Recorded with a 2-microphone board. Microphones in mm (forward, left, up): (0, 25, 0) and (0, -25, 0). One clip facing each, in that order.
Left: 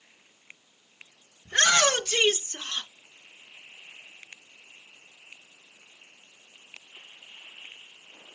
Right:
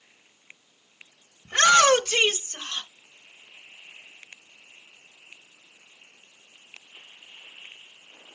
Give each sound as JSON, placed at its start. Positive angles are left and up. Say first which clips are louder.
{"t": 1.4, "sound": "a shout", "louder": "right 5 dB", "side_deg": -50, "distance_m": 2.5}